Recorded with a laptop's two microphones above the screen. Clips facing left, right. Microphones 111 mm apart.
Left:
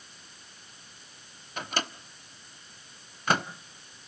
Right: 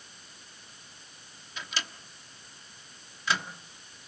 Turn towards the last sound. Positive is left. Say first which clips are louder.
# left 6 dB
turn(degrees=50)  # may be behind; listen again after turning